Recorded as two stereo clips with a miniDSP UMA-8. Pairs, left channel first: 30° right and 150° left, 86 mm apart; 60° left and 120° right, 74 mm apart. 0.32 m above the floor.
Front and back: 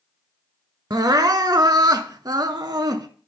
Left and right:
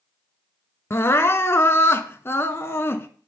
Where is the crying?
115° left, 0.5 m.